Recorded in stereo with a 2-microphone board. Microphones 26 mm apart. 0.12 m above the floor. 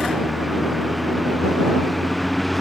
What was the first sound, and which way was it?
A vehicle, 5° right (ahead or behind).